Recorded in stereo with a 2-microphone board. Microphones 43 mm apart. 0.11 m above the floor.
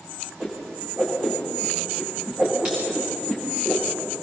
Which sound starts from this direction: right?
A whoosh, at 0.4 s.